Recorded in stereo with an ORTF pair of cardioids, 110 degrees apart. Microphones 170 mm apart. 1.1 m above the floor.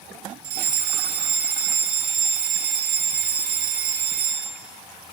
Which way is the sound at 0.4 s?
65° right.